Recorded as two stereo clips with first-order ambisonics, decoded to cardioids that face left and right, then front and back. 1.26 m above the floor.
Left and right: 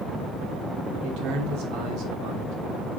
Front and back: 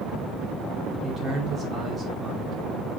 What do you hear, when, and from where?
1.0 s a man speaking: 105° right, 3 m